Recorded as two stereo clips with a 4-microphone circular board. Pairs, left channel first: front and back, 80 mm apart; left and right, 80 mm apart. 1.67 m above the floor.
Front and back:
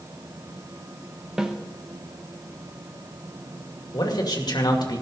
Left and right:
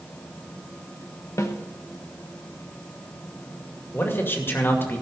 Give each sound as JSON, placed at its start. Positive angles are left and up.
{"t": 1.4, "sound": "a snare drum", "azimuth_deg": 105, "distance_m": 1.0}
{"t": 3.9, "sound": "a man speaking", "azimuth_deg": 30, "distance_m": 2.0}